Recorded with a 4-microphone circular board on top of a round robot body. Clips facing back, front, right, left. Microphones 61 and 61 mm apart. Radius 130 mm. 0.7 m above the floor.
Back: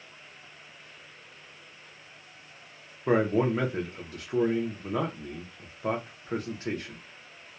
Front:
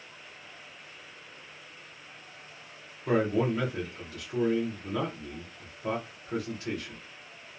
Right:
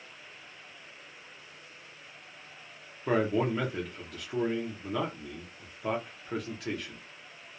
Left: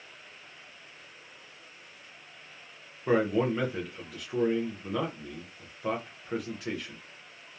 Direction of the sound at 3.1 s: 175° left.